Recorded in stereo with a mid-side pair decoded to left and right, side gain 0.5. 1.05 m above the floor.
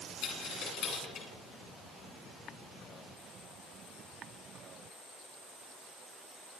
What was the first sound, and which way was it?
A dropped coin, 65° left.